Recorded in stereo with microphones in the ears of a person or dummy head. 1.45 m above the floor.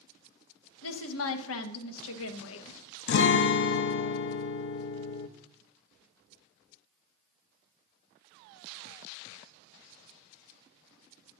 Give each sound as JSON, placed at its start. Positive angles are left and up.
{"t": 0.8, "sound": "a woman speaking", "side_deg": 75, "distance_m": 1.2}
{"t": 3.1, "sound": "a guitar", "side_deg": 60, "distance_m": 0.6}